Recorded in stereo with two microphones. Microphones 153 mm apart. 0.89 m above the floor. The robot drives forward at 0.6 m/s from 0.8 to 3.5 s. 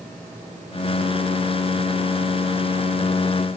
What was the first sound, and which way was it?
Only background noise.